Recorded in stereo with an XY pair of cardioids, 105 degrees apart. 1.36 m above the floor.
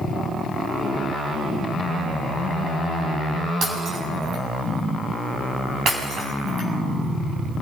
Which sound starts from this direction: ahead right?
Breaking glass, at 3.6 s.